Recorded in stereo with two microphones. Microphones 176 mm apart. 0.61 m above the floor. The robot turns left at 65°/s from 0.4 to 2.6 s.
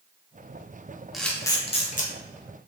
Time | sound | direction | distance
1.1 | a camera shutter | centre (ahead or behind) | 0.6 m